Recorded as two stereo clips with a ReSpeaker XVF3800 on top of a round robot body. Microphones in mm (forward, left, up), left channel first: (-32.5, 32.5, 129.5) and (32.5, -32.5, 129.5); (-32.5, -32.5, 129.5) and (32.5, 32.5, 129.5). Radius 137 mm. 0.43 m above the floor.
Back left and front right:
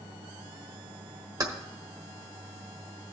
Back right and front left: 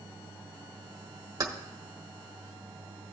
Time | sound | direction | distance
1.4 | keys jangling | straight ahead | 1.4 m